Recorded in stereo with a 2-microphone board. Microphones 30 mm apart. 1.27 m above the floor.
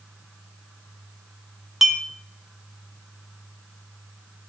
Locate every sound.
1.8 s a clink: 10° right (ahead or behind), 0.7 m